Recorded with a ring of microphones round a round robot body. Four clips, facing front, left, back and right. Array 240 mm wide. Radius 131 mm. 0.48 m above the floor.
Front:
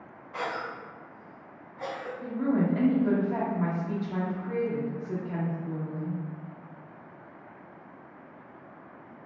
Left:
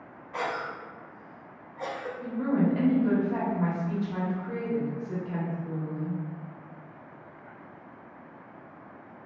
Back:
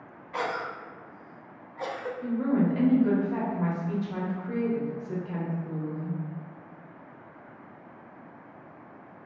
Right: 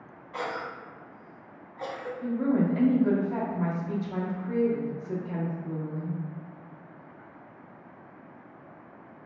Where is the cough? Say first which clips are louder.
Left 2 dB, back 2 dB; 170° left, 0.8 m.